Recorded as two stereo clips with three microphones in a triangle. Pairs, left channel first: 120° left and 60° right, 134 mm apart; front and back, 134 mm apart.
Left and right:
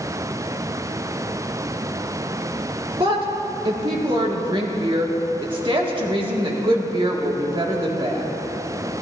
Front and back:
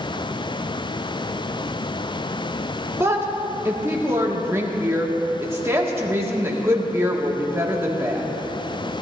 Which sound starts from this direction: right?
A woman speaking, at 3.0 s.